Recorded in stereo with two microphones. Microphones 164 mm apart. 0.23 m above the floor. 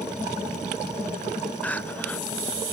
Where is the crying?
10° left (ahead or behind).